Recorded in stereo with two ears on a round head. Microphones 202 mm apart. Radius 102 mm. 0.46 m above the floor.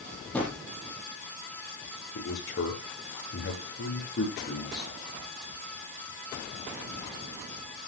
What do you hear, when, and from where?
0.3 s a drawer: 5° left (ahead or behind), 6 m
2.1 s a man speaking: 50° left (ahead or behind), 7.5 m